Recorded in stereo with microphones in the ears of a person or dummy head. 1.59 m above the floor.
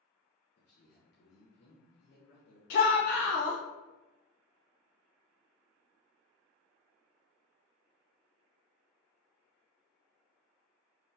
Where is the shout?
50° left (ahead or behind), 0.7 m.